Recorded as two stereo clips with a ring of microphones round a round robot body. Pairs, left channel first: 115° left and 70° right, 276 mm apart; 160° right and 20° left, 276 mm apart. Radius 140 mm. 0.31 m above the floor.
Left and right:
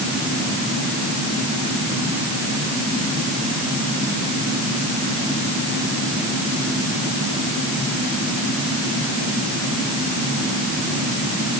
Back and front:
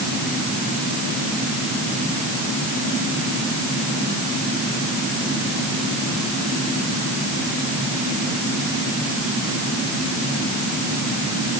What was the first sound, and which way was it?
Only background noise.